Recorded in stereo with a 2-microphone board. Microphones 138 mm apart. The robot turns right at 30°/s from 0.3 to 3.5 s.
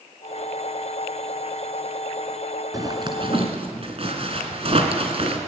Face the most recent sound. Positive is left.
turn(degrees=-50)  # may be behind; listen again after turning